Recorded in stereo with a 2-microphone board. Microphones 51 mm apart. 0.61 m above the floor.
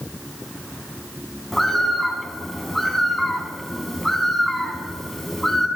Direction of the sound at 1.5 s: 5° left (ahead or behind).